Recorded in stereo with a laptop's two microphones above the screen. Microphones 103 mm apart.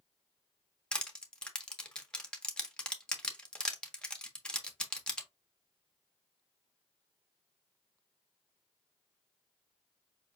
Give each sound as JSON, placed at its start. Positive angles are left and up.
{"t": 0.9, "sound": "crushing", "side_deg": 10, "distance_m": 0.5}